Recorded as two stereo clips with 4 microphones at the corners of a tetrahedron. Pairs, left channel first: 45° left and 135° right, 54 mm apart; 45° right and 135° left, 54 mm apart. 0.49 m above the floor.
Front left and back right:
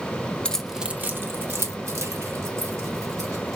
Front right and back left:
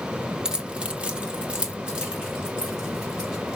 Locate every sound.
0.5 s keys jangling: 80° left, 0.5 m; by 3.6 s 150° right, 2.5 m